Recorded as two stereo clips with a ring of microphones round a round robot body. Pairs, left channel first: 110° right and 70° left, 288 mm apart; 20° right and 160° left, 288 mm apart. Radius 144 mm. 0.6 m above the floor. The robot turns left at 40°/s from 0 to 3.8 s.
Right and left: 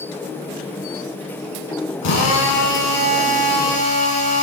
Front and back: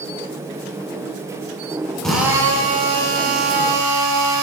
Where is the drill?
110° right, 4 m; by 4.4 s straight behind, 4 m.